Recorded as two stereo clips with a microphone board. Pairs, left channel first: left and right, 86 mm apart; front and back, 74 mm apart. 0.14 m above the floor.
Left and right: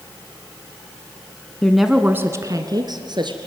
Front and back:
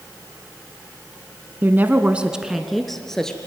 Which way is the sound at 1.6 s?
165° left.